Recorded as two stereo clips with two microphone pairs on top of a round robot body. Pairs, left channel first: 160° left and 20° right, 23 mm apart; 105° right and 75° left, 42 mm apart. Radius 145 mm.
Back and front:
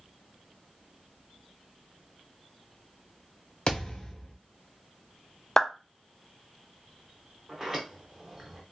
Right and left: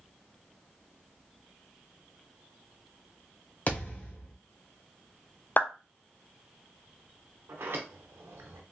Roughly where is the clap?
Behind right.